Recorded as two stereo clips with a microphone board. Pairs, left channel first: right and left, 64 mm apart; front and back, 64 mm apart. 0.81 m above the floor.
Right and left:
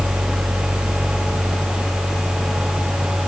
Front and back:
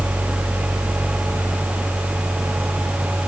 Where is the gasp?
No gasp in this recording.